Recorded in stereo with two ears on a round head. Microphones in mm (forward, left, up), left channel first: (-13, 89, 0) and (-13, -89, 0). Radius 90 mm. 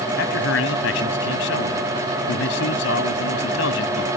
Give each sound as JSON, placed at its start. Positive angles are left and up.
{"t": 0.2, "sound": "a man speaking", "side_deg": 75}